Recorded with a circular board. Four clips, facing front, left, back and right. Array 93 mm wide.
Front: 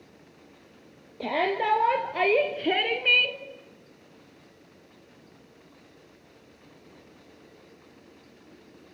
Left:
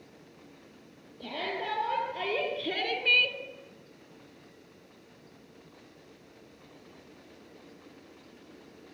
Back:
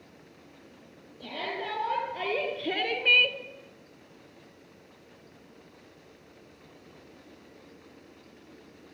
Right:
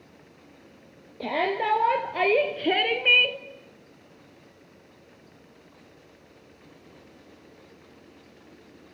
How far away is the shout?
About 3 m.